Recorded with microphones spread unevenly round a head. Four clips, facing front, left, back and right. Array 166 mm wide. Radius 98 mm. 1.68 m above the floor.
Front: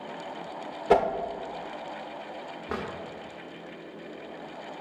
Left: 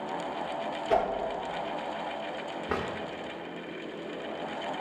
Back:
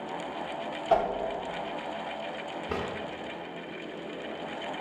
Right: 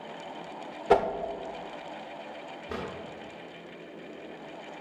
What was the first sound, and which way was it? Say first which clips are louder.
A whoosh: right 4 dB, front 3 dB; 55° right.